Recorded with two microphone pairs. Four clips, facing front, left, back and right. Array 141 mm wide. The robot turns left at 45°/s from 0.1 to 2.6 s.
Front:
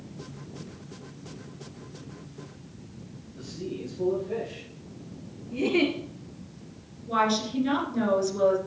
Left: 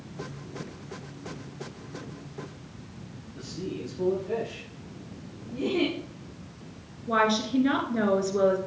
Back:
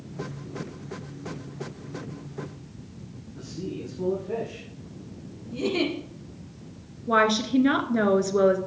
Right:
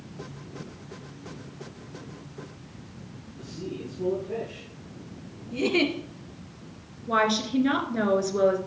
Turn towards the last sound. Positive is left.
turn(degrees=180)